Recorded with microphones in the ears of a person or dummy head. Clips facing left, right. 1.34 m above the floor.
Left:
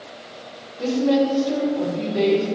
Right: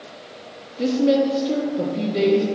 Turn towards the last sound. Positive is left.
turn(degrees=-40)  # may be behind; listen again after turning